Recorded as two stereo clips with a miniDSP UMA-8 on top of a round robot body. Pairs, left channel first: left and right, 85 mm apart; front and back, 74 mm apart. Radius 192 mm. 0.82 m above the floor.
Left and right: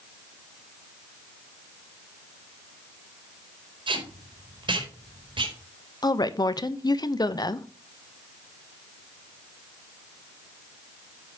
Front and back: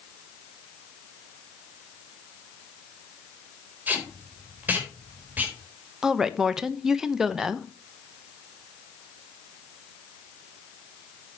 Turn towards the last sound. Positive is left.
turn(degrees=100)